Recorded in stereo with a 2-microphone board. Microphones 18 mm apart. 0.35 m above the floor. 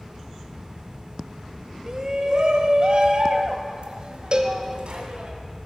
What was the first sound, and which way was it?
A shout, 40° right (ahead or behind).